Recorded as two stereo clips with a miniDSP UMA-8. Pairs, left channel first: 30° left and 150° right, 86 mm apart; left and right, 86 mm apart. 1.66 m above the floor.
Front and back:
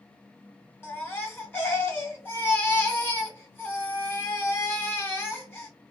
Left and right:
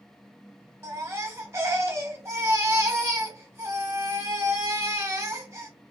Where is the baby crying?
35° right, 1.2 m.